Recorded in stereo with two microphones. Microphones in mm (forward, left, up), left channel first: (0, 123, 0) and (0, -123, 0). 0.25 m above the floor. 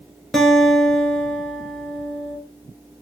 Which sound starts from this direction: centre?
A guitar, at 0.3 s.